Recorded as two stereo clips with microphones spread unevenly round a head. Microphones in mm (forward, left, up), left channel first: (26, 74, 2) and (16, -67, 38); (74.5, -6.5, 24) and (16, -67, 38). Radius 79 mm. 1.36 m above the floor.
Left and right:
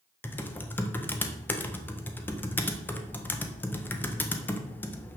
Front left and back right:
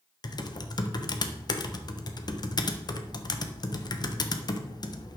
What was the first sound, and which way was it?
Typing on a keyboard, 10° left.